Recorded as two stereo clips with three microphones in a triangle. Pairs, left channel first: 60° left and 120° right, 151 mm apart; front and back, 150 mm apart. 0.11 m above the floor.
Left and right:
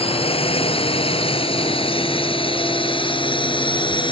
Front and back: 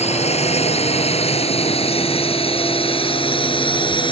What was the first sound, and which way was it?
A drone, 25° left.